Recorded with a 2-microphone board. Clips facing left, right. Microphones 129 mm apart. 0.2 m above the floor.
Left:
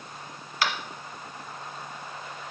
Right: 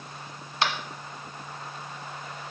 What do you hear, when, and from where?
0.6 s tapping: 30° right (ahead or behind), 1.2 m